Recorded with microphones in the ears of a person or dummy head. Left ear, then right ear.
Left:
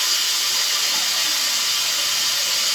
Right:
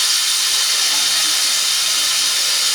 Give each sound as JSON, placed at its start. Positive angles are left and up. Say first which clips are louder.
{"t": 0.0, "sound": "running water", "louder": "right 3 dB", "side_deg": -50, "distance_m": 1.3}